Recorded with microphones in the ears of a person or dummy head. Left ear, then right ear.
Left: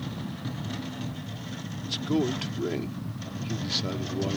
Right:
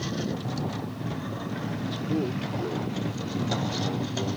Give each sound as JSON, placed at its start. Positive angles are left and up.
{"t": 1.9, "sound": "a man speaking", "side_deg": 35}